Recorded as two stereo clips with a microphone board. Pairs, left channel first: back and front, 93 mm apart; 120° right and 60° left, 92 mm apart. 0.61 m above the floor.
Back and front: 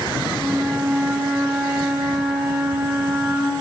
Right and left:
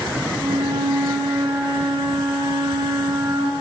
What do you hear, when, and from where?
0.4 s a flute: 75° left, 0.9 m